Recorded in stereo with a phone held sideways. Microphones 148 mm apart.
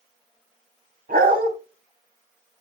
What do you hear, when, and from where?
1.1 s a dog barking: 80° right, 3.5 m